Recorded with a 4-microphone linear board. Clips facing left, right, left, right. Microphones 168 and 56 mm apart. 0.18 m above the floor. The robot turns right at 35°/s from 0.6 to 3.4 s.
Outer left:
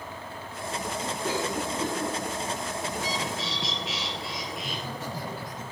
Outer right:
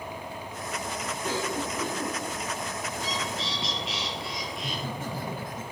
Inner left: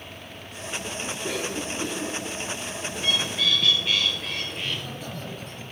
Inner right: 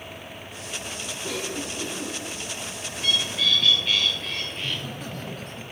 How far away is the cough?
About 2.5 m.